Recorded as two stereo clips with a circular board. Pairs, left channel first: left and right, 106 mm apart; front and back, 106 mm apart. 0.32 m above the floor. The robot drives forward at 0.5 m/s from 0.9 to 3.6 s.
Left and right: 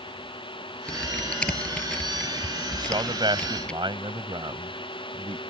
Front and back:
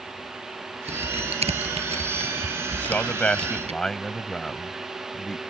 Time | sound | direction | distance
0.9 | typing on a keyboard | 170° left | ?
2.8 | a man speaking | 65° right | ?